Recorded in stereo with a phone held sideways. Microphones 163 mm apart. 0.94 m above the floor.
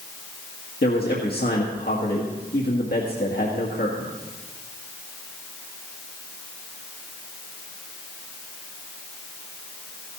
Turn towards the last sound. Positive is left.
turn(degrees=70)  # may be behind; listen again after turning